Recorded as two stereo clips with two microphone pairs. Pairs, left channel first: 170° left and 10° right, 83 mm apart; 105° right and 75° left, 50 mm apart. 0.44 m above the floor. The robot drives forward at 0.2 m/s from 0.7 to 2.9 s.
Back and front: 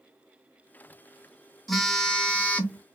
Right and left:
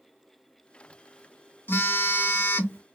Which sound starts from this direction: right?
A phone buzzing, at 1.7 s.